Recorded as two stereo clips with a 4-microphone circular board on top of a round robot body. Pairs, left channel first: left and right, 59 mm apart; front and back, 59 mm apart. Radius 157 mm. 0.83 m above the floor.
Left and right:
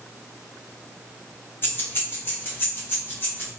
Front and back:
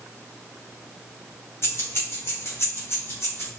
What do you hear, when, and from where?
1.6 s keys jangling: 40° left, 1.2 m